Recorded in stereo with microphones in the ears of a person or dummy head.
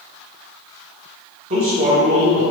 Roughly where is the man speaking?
Right.